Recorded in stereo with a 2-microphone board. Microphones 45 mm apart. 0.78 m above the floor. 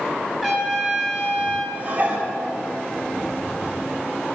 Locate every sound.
0.4 s a trumpet: 10° right (ahead or behind), 2 m
1.8 s dishes clattering: 40° right (ahead or behind), 1.2 m